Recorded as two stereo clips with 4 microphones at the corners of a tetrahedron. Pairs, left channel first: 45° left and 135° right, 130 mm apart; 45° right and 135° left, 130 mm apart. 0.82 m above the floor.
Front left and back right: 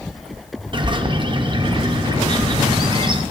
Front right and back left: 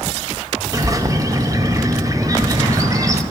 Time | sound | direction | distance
0.7 | a bird | 165° right | 0.5 m